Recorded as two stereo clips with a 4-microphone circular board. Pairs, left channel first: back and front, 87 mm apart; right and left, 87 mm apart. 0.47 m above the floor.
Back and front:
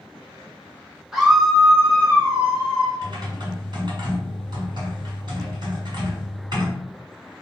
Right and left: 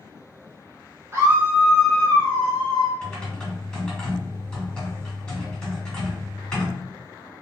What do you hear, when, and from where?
1.1 s a scream: 80° left, 1.2 m; by 2.9 s 135° right, 1.7 m
3.0 s typing on a keyboard: 15° right, 1.5 m